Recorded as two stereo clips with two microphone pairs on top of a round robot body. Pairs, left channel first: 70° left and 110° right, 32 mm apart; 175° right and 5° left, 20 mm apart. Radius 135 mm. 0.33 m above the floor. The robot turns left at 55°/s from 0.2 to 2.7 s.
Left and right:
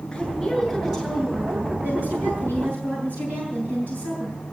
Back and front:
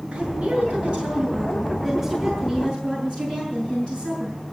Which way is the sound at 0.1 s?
5° left.